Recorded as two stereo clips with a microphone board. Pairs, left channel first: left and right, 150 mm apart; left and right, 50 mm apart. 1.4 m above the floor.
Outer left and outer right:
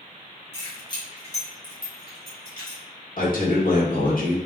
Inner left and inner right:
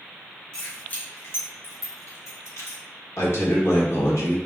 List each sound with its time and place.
0.5 s keys jangling: 15° left (ahead or behind), 1.1 m; by 2.8 s 70° left (ahead or behind), 1.3 m
3.2 s a man speaking: 70° left (ahead or behind), 1.0 m